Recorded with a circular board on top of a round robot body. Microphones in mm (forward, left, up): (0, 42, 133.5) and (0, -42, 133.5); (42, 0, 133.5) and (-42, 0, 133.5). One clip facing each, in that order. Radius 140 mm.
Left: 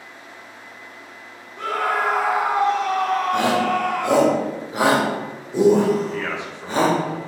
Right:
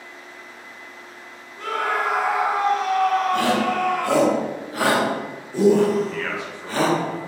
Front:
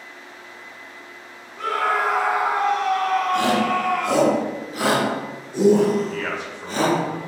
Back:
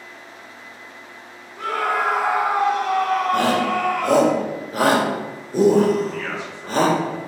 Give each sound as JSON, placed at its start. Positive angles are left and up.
{"t": 1.6, "sound": "a scream", "azimuth_deg": 80, "distance_m": 2.5}
{"t": 3.3, "sound": "a shout", "azimuth_deg": 155, "distance_m": 2.0}
{"t": 6.1, "sound": "a man speaking", "azimuth_deg": 25, "distance_m": 3.0}